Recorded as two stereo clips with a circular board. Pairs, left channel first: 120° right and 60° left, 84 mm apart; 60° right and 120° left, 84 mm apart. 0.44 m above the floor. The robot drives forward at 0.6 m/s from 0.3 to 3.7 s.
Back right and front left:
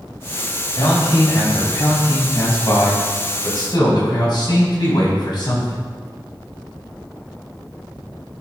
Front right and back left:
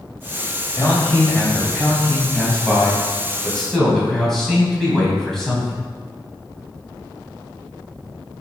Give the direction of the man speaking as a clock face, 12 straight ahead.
4 o'clock.